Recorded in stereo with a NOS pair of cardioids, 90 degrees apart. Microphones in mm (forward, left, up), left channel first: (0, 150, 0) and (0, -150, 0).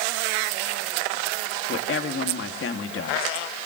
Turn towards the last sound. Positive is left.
turn(degrees=50)